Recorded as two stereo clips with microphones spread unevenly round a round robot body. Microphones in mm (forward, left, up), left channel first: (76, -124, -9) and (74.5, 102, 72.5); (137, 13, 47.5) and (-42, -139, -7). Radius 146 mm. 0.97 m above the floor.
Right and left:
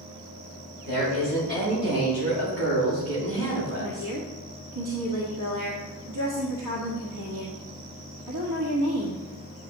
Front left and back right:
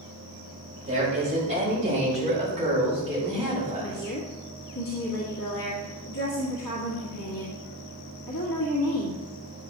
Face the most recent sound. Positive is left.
turn(degrees=90)